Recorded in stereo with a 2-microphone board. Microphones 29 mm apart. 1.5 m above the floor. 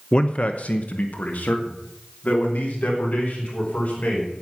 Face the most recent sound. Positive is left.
turn(degrees=85)